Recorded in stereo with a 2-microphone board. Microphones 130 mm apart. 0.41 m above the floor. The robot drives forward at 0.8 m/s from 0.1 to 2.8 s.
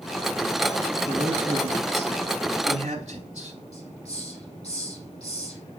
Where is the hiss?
50° left (ahead or behind), 6 m.